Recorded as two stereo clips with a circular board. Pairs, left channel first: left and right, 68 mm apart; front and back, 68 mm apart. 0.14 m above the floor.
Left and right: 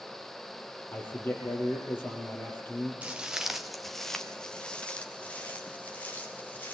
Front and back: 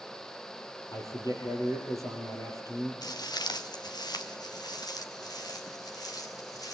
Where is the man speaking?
30° left, 4 m.